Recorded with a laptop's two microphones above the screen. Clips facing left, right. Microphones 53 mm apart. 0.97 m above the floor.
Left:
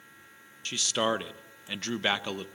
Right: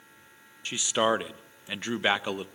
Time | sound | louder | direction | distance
0.7 | a man speaking | right 3 dB | 15° right (ahead or behind) | 0.6 m